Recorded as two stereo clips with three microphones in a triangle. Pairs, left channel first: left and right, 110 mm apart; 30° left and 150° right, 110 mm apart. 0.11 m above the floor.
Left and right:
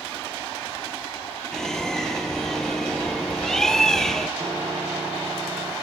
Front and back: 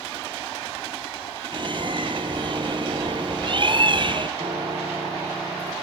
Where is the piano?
135° right, 2.5 m.